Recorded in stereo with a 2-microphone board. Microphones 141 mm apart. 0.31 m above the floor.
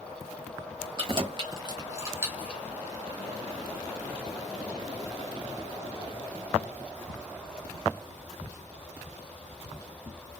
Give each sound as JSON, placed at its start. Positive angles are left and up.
{"t": 1.0, "sound": "keys jangling", "side_deg": -40, "distance_m": 1.0}